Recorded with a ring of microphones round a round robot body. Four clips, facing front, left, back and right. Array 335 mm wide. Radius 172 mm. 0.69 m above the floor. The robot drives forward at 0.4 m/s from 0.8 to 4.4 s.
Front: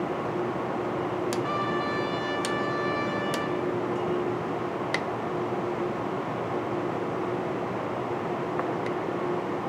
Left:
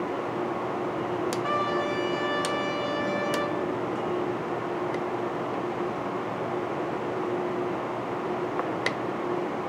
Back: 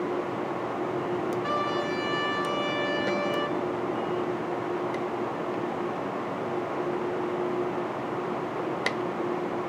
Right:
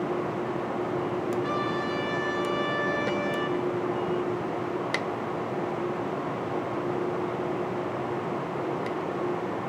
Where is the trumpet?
140° right, 5.5 m; by 3.6 s 145° right, 6 m.